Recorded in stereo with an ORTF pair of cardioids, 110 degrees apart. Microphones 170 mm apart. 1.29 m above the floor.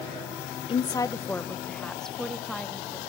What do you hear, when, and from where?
0.7 s a woman speaking: 30° left, 0.8 m; by 3.0 s straight ahead, 2.5 m